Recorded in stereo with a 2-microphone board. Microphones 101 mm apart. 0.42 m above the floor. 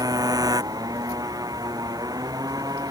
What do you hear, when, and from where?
0.0 s a motorcycle: 40° right (ahead or behind)